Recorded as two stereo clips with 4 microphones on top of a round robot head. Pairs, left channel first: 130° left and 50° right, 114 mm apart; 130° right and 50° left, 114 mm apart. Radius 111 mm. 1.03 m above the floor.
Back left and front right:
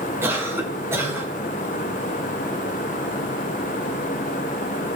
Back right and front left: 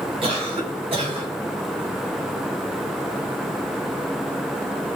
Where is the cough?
15° left, 3.5 m.